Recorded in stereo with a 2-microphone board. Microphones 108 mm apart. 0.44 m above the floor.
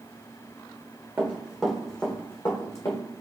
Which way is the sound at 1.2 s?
20° right (ahead or behind).